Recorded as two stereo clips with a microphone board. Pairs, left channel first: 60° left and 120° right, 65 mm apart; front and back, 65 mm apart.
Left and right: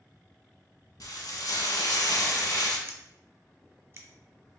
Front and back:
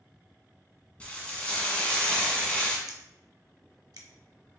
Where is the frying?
70° left, 0.9 m.